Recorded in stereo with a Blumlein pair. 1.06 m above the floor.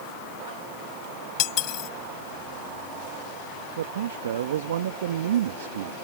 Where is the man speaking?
60° right.